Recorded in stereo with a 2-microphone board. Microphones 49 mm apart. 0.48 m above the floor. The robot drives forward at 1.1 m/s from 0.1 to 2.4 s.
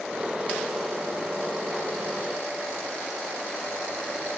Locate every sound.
Only background noise.